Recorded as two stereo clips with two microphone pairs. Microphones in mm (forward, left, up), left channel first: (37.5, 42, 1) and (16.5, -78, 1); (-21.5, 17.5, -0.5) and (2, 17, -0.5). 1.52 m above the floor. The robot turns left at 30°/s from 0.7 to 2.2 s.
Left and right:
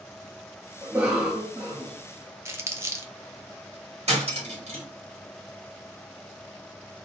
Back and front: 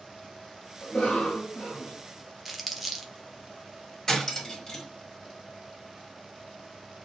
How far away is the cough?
About 0.8 m.